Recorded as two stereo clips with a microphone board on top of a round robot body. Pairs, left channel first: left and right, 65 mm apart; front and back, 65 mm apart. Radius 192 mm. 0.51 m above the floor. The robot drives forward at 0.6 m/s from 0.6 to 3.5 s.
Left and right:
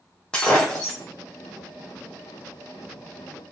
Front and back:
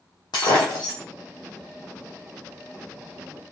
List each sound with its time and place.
0.3 s breaking glass: 10° left, 1.1 m; by 1.0 s 15° left, 0.9 m